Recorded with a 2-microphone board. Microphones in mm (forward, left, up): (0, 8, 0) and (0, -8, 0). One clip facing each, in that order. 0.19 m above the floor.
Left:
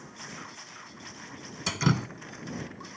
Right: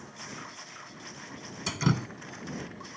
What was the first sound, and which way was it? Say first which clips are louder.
Dripping: left 2 dB; 10° left (ahead or behind).